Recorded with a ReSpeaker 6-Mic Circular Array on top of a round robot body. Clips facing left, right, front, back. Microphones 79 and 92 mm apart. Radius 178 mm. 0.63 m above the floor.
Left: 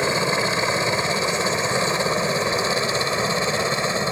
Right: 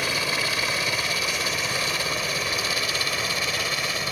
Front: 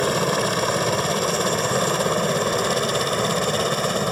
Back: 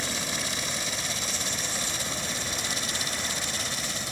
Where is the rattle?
No rattle in this recording.